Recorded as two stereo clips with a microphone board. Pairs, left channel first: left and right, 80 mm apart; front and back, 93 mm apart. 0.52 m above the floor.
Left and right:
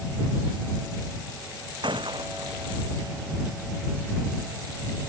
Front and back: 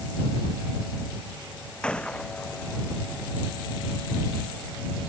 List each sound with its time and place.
1.8 s a gunshot: 80° right